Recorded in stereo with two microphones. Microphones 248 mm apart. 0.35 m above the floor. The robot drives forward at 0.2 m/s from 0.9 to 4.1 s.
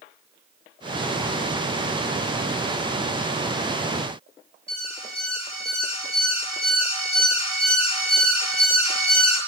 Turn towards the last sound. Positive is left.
turn(degrees=25)  # may be behind; listen again after turning